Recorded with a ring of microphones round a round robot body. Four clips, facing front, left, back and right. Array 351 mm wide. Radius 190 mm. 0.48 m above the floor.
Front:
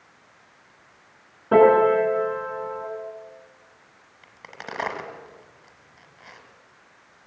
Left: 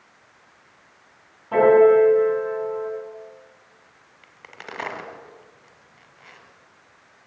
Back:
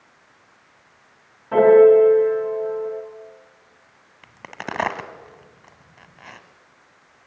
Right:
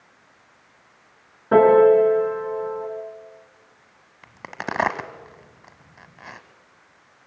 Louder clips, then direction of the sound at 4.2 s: Right 10 dB, back 6 dB; 120° right.